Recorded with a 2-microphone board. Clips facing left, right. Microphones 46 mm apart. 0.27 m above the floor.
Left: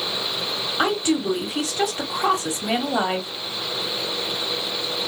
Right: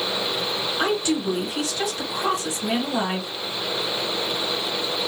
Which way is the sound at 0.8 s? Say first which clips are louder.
Left 2 dB; 35° left (ahead or behind).